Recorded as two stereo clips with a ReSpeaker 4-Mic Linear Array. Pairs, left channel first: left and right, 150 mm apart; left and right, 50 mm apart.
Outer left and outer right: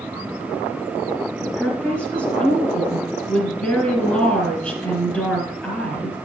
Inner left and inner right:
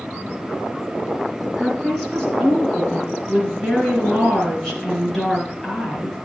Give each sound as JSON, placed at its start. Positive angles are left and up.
{"t": 1.6, "sound": "a woman speaking", "side_deg": 5, "distance_m": 2.5}